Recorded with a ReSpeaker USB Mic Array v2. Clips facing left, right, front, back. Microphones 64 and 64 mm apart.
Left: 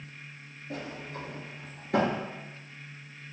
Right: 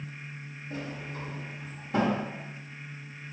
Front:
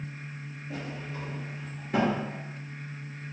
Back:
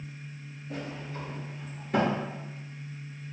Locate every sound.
0.7 s a sliding door: 90° left, 1.2 m